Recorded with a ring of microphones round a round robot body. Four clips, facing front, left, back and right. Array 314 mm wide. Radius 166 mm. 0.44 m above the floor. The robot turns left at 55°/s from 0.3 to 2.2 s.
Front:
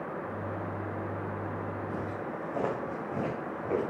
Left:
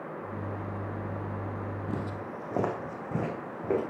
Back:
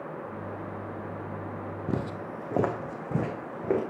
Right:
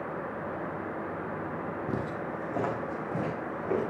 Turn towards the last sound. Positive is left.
turn(degrees=160)